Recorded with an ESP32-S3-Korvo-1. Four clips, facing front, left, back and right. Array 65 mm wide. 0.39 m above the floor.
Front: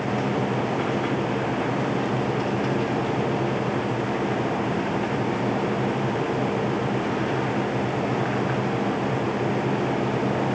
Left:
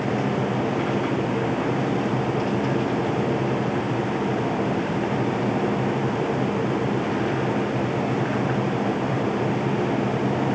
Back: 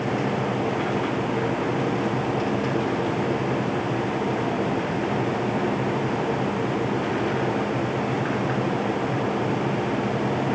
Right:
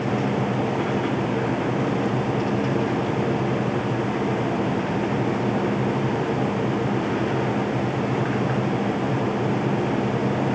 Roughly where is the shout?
I don't hear a shout.